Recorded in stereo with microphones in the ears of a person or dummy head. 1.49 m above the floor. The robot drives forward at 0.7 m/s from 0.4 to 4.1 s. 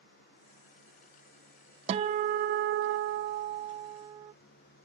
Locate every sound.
1.9 s a guitar: 35° right (ahead or behind); by 4.3 s 25° right (ahead or behind)